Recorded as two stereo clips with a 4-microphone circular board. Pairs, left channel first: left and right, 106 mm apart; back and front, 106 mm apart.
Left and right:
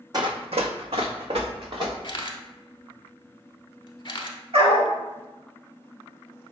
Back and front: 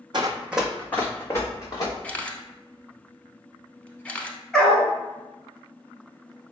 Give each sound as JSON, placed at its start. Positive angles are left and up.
{"t": 0.1, "sound": "running footsteps", "azimuth_deg": -40, "distance_m": 0.7}
{"t": 2.0, "sound": "a camera shutter", "azimuth_deg": 110, "distance_m": 0.6}
{"t": 4.5, "sound": "a dog barking", "azimuth_deg": -95, "distance_m": 1.2}